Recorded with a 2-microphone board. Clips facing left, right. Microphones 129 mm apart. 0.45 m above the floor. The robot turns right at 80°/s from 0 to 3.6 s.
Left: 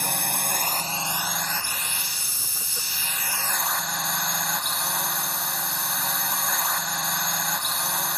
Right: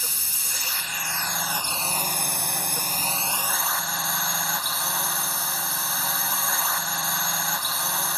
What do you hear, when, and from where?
0.0 s a drone: 70° left; by 8.2 s straight ahead